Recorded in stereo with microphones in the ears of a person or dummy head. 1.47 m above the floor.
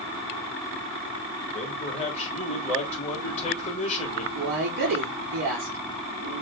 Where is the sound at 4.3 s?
55° right (ahead or behind), 3 m.